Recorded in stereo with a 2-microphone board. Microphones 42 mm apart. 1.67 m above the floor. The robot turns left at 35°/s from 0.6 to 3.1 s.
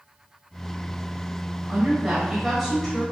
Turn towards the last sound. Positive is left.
turn(degrees=165)